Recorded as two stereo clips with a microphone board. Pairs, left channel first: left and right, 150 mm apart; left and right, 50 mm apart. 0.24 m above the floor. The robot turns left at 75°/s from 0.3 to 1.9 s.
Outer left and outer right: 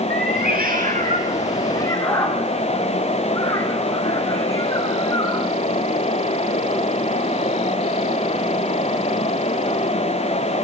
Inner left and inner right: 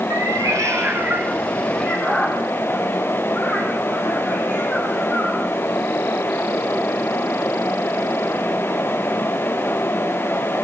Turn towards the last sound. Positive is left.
turn(degrees=20)  # may be behind; listen again after turning